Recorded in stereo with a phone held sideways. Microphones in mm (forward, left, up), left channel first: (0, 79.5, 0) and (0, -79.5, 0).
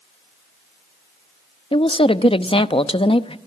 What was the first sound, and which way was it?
A woman speaking, 35° left (ahead or behind).